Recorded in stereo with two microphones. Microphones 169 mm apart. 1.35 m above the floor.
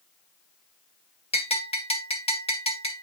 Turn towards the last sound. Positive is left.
turn(degrees=35)  # may be behind; listen again after turning